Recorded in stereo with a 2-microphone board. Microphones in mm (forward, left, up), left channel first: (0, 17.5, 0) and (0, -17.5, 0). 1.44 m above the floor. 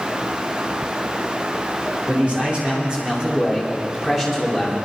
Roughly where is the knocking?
I don't hear knocking.